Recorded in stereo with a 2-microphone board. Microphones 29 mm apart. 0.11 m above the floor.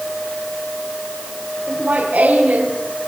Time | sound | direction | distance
1.7 | laughter | 70° right (ahead or behind) | 6.5 m